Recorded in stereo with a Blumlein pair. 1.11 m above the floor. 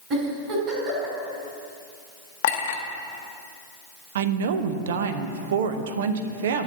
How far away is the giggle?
About 3.5 m.